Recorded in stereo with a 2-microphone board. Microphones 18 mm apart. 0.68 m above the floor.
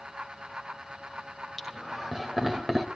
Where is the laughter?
10° right (ahead or behind), 4 m; by 2.9 s 25° right (ahead or behind), 3.5 m.